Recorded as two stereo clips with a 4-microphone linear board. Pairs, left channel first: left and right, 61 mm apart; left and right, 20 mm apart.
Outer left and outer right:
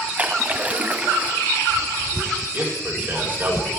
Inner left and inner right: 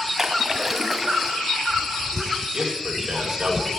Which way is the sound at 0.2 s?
25° right (ahead or behind).